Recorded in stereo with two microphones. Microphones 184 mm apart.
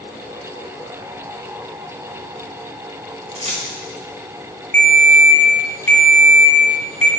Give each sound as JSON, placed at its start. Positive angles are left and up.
{"t": 3.4, "sound": "keys jangling", "side_deg": -40, "distance_m": 1.1}
{"t": 4.7, "sound": "a ringtone", "side_deg": -40, "distance_m": 1.2}